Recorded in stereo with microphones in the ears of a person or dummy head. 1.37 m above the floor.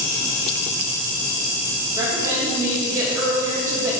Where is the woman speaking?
20° right (ahead or behind), 3 m.